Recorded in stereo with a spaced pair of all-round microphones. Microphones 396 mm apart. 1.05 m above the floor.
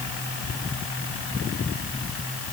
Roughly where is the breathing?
I don't hear breathing.